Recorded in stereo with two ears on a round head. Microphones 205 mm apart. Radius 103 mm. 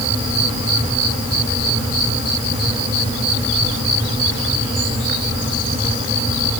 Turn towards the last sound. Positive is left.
No sound to turn to.